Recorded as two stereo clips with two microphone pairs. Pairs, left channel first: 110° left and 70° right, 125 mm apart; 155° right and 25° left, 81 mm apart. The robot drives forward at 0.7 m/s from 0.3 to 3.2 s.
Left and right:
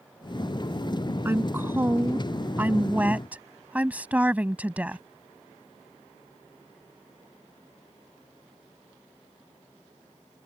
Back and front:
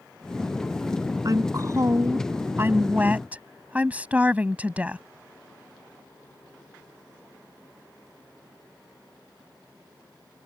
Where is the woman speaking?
5° right; by 5.0 s 10° right.